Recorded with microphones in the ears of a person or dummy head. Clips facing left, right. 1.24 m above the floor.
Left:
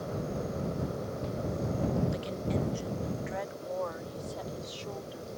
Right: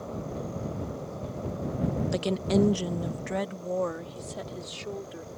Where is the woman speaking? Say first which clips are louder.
Right 8 dB; 75° right (ahead or behind); by 5.3 s 35° right (ahead or behind).